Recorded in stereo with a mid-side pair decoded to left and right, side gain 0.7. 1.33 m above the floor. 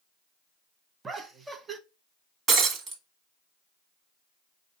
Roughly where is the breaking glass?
Ahead right.